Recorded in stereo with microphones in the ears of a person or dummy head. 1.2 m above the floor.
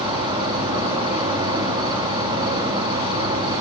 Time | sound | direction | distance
0.0 | an insect | 30° right (ahead or behind) | 1.0 m